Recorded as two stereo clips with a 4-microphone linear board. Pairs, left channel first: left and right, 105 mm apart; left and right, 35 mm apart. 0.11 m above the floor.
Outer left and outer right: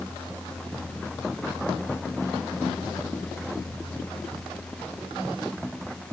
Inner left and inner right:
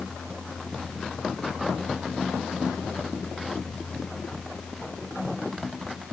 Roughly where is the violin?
I don't hear a violin.